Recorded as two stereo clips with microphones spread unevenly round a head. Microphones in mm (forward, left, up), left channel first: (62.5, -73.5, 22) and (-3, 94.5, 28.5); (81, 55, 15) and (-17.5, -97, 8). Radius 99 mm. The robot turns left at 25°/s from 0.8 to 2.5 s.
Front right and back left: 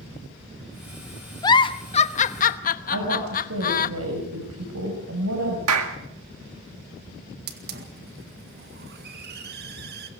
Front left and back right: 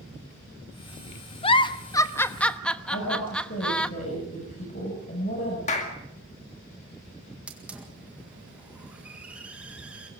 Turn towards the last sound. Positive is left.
turn(degrees=155)